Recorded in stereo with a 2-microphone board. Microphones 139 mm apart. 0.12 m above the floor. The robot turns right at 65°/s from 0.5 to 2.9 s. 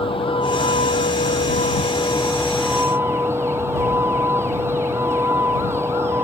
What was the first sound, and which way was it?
A vehicle, 45° left.